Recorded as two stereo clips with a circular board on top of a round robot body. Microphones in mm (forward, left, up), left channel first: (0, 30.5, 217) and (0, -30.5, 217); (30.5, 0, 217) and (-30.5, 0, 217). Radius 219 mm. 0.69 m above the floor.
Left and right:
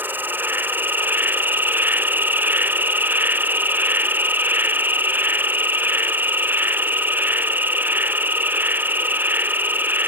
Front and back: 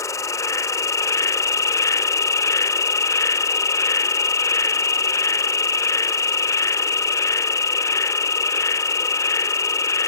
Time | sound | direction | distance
0.0 | an insect | 35° right | ?